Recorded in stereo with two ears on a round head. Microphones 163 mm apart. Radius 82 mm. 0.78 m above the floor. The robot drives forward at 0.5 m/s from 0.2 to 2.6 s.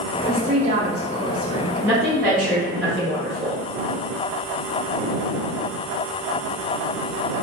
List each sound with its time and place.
0.3 s a woman speaking: 40° right (ahead or behind), 0.7 m; by 1.7 s 30° right (ahead or behind), 0.9 m
1.8 s a woman speaking: 10° left (ahead or behind), 1.7 m